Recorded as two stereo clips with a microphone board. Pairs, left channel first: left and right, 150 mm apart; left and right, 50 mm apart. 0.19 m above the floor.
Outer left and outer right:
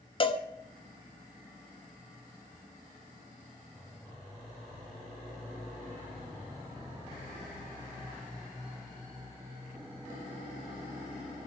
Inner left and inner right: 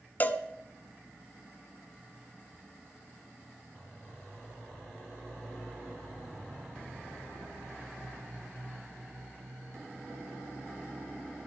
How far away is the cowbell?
About 0.5 m.